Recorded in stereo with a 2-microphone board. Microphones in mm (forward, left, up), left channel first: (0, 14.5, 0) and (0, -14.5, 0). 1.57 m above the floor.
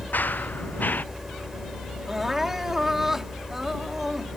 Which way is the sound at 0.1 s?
70° left (ahead or behind).